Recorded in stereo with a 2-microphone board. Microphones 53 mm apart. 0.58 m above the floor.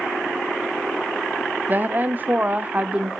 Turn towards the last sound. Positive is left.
turn(degrees=-25)  # may be behind; listen again after turning